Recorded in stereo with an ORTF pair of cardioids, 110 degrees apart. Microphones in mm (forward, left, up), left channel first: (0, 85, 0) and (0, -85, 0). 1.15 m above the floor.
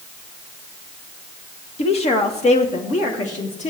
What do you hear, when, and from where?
1.8 s a woman speaking: 40° left, 1.5 m; by 3.7 s 45° left, 3 m